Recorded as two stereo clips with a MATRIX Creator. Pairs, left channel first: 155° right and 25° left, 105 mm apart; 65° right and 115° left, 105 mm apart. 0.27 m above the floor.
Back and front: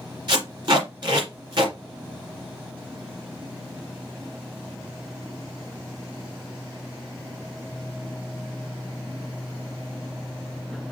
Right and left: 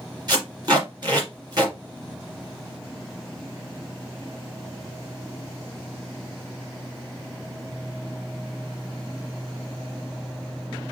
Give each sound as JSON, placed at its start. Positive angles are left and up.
{"t": 0.3, "sound": "tape being pulled", "azimuth_deg": 65, "distance_m": 2.5}